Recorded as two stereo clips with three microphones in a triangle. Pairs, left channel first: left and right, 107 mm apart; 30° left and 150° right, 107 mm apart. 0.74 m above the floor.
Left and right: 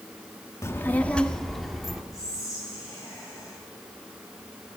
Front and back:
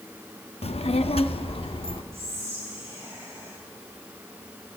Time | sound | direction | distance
0.6 | a child speaking | 30° left | 0.6 m
2.1 | whispering | 145° left | 3.5 m